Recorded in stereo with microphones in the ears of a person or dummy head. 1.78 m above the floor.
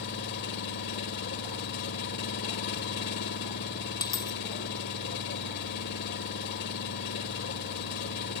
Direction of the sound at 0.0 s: 60° left (ahead or behind).